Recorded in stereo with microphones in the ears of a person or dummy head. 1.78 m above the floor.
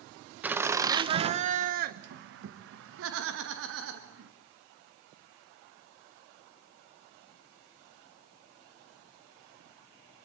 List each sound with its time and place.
0.4 s laughter: 5° right (ahead or behind), 1.3 m; by 4.3 s 75° right (ahead or behind), 3 m